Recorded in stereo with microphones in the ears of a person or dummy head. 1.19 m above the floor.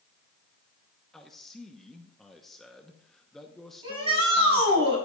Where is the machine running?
I don't hear a machine running.